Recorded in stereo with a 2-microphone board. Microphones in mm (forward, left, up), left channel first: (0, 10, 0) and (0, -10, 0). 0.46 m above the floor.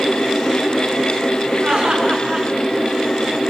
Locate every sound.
1.6 s laughter: 45° right (ahead or behind), 6.5 m